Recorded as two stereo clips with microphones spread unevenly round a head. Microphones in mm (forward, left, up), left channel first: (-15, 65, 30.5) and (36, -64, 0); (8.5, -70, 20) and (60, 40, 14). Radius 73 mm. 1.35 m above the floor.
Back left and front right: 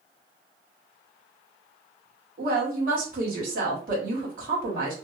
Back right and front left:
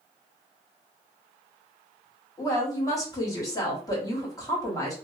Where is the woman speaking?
55° right, 1.4 m.